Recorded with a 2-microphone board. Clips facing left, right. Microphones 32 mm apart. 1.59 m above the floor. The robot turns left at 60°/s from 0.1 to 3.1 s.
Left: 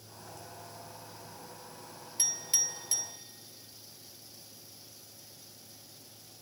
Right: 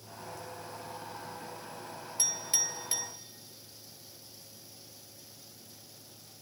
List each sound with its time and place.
2.2 s a clink: 20° left (ahead or behind), 1.8 m; by 3.1 s 30° right (ahead or behind), 1.8 m